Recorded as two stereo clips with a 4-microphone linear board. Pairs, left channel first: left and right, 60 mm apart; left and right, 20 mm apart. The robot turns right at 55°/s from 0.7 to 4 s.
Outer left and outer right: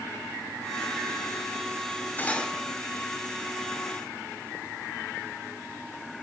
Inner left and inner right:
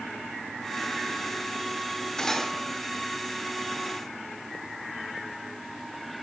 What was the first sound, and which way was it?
Cutlery clinking, 30° left (ahead or behind).